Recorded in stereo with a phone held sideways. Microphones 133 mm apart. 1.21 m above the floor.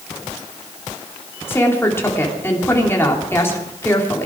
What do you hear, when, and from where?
1.5 s a woman speaking: 20° left (ahead or behind), 3 m